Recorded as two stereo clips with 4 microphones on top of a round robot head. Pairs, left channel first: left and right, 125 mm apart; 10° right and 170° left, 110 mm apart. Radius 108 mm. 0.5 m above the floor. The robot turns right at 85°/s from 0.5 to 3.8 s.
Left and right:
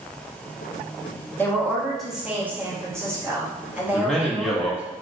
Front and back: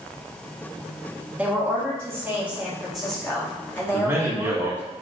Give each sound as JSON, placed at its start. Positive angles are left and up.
{"t": 1.4, "sound": "a woman speaking", "azimuth_deg": 125, "distance_m": 1.2}
{"t": 3.9, "sound": "a man speaking", "azimuth_deg": 165, "distance_m": 0.8}